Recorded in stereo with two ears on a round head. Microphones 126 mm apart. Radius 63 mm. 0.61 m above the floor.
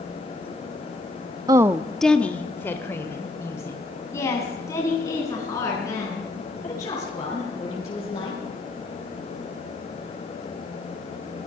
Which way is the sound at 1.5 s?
25° right (ahead or behind).